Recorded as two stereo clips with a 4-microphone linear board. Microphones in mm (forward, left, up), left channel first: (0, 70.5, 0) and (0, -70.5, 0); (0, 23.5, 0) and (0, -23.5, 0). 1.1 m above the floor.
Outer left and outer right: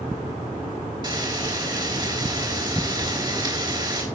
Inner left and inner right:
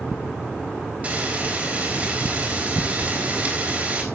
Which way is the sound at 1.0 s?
30° right (ahead or behind).